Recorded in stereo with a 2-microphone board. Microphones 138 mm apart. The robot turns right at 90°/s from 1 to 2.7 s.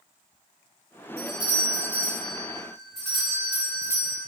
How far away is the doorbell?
About 2.0 m.